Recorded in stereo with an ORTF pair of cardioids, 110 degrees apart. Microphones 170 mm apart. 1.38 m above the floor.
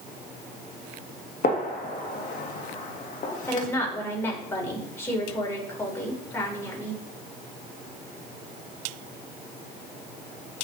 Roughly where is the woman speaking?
Ahead.